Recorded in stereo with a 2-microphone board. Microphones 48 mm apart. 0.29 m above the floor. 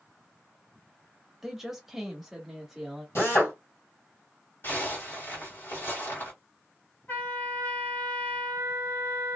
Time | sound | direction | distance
1.4 | a woman speaking | 5° right (ahead or behind) | 0.9 m
3.1 | a drill | 60° left (ahead or behind) | 1.9 m
4.6 | a zipper | 50° left (ahead or behind) | 1.9 m
7.1 | a trumpet | 40° left (ahead or behind) | 2 m